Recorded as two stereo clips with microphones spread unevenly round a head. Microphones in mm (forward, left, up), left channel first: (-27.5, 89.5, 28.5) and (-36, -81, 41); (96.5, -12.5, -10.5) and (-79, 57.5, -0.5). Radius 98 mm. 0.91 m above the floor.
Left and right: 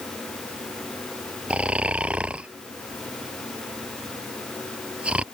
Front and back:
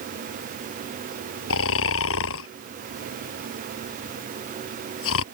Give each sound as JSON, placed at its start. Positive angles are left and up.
{"t": 1.5, "sound": "snoring", "azimuth_deg": -10}